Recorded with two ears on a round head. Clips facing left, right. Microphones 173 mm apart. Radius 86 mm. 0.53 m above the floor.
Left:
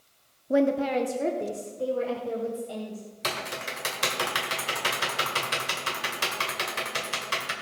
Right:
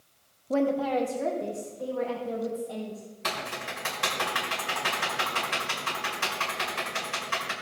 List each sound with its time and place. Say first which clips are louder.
0.5 s a woman speaking: left 2 dB; 15° left (ahead or behind), 0.6 m; by 3.1 s 40° left (ahead or behind), 2.5 m
3.2 s typing on a keyboard: left 1 dB; 50° left (ahead or behind), 2 m